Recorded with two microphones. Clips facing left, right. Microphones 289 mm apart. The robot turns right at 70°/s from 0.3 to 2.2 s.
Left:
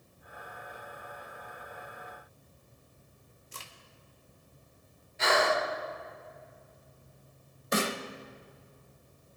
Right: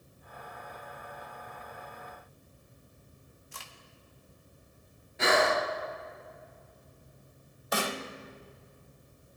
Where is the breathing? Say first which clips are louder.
Right 1 dB; 75° right (ahead or behind), 2.5 m.